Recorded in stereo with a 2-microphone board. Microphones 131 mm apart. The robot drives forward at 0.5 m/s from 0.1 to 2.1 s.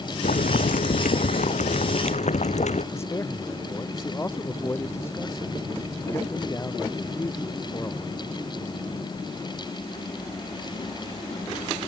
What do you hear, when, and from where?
0.2 s boiling: 80° left; by 2.8 s 60° left (ahead or behind)
2.9 s a man speaking: 20° left (ahead or behind)